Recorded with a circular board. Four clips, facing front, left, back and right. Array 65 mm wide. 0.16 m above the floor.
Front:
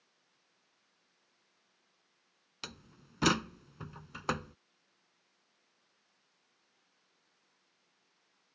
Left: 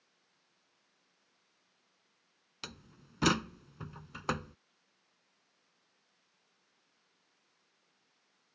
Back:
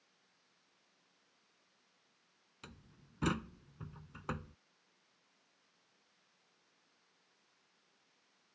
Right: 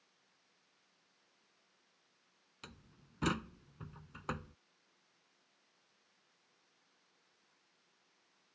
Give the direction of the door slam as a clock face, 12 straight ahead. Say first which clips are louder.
Left 7 dB, front 8 dB; 11 o'clock.